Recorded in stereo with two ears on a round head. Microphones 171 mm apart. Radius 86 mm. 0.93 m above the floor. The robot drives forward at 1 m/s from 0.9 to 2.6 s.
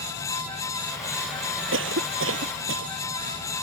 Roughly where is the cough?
Right.